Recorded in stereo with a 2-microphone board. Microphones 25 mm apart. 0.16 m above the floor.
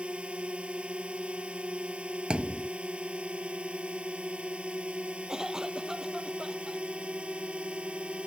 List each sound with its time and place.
0.0 s a drone: 55° right (ahead or behind)
2.3 s a thud: 50° right (ahead or behind)
5.3 s a cough: 25° right (ahead or behind)